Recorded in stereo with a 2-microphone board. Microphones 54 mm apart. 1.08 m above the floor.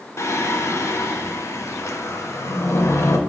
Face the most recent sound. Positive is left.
turn(degrees=60)  # may be behind; listen again after turning